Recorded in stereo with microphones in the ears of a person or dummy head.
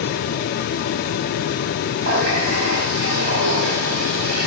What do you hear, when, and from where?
2.0 s a running tap: 60° right (ahead or behind), 5 m